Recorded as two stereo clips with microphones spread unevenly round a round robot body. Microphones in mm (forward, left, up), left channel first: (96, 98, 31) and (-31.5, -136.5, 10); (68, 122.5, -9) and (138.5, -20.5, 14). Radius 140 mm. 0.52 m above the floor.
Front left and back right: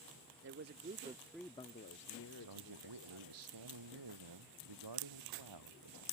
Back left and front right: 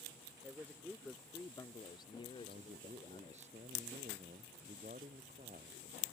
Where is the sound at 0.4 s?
145° right; by 3.4 s 65° left.